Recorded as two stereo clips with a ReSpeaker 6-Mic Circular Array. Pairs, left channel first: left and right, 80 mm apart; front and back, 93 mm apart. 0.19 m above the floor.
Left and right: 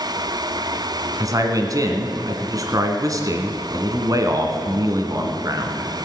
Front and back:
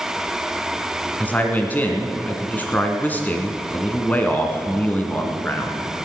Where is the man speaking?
65° right, 1.7 m.